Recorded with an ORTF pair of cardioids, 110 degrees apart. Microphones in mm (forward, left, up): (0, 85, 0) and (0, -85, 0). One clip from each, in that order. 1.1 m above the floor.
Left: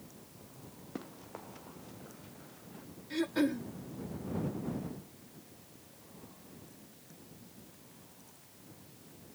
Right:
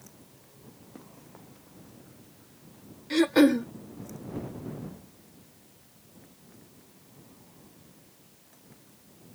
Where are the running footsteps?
40° left; by 2.9 s 45° left.